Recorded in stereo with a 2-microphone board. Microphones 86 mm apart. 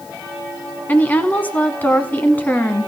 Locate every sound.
0.9 s a woman speaking: 20° left (ahead or behind), 1.2 m